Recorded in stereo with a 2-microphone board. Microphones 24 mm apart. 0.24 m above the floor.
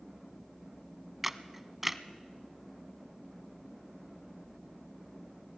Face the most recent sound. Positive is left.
turn(degrees=-10)  # may be behind; listen again after turning